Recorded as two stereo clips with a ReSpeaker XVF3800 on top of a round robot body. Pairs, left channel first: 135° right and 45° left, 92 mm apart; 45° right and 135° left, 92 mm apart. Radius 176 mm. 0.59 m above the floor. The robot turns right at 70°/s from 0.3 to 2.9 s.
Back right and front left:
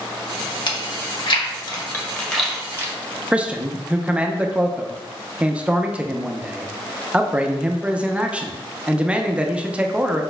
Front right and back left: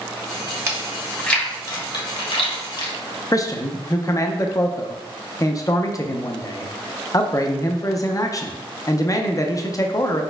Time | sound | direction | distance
0.7 | chewing | 165° right | 1.3 m
3.3 | a man speaking | 25° right | 0.7 m